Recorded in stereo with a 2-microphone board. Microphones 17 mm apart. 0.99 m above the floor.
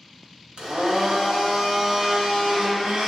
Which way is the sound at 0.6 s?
70° right (ahead or behind).